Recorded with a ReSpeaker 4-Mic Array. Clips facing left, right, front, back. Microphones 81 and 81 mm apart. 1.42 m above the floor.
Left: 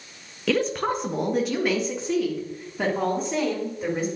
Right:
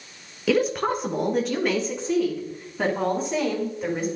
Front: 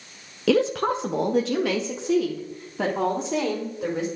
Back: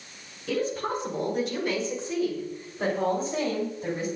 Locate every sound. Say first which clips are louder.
0.5 s a woman speaking: right 2 dB, front 7 dB; 5° right, 0.9 m; by 4.1 s 5° left, 5 m